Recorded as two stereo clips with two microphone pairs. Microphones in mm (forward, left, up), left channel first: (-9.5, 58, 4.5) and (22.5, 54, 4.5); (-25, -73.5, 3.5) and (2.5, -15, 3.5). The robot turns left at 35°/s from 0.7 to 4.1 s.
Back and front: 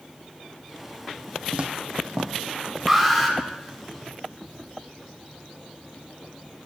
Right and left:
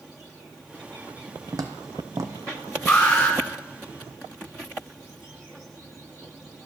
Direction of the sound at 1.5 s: 50° left.